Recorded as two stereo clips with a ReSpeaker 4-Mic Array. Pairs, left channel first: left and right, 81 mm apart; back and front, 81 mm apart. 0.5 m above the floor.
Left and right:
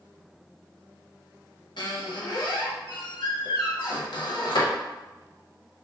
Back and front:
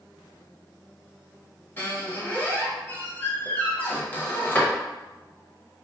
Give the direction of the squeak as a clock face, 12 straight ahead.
8 o'clock.